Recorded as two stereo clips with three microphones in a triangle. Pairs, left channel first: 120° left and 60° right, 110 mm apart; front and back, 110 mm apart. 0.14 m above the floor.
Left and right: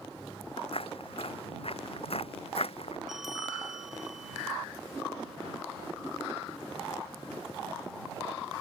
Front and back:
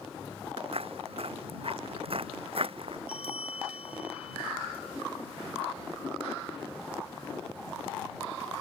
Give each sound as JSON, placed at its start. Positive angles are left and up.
{"t": 0.6, "sound": "footsteps", "azimuth_deg": 150}
{"t": 3.1, "sound": "a bell", "azimuth_deg": 25}